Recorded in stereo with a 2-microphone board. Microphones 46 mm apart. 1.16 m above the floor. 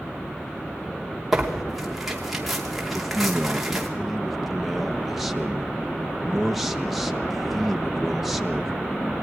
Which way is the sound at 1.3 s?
5° right (ahead or behind).